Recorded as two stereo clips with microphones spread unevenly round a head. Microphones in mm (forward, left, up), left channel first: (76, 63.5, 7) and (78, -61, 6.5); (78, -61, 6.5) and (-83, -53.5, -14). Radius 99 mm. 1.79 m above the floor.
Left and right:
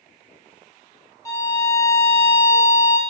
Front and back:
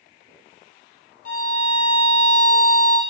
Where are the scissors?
I don't hear scissors.